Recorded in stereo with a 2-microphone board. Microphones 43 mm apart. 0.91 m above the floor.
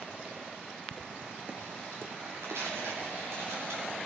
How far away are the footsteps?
About 0.9 m.